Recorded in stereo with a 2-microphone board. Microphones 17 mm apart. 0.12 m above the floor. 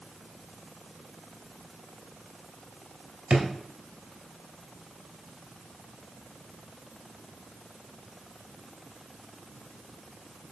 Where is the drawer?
60° right (ahead or behind), 1.5 m.